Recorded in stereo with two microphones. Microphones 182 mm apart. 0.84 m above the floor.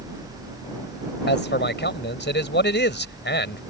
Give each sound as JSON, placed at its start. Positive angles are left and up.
{"t": 1.3, "sound": "a man speaking", "side_deg": 80}